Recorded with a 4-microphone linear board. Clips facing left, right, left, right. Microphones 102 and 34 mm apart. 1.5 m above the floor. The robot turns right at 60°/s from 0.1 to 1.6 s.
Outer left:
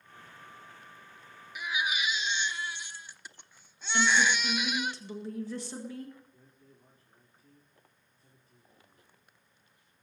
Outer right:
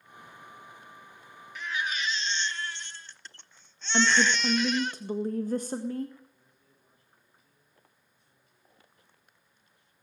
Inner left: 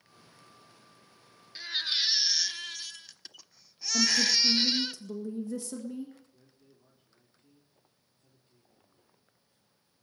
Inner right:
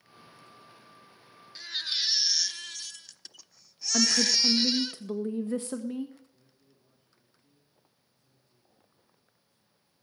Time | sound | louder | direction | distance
1.6 | a baby crying | even, inner left 2 dB | 15° left (ahead or behind) | 0.8 m
3.9 | a woman speaking | outer right 2 dB, inner right 1 dB | 45° right (ahead or behind) | 1.8 m
6.3 | a man speaking | outer left 6 dB, inner left 3 dB | 40° left (ahead or behind) | 4.5 m